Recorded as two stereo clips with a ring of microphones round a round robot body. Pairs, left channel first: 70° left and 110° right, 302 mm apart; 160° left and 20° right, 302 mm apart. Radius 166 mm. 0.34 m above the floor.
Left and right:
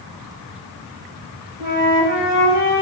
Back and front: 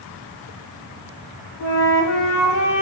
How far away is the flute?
About 1.0 m.